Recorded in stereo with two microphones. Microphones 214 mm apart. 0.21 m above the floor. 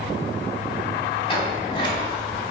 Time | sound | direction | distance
1.3 | a sliding door | 25° left (ahead or behind) | 1.2 m